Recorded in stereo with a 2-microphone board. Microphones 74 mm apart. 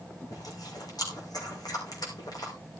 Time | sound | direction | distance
0.3 | chewing | 65° left (ahead or behind) | 6 m